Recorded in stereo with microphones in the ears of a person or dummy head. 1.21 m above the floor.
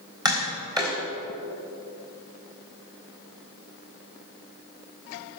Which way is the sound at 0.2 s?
10° right (ahead or behind).